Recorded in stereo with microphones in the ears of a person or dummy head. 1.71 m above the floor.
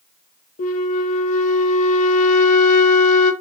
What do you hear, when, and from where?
0.6 s a flute: 40° left (ahead or behind), 0.7 m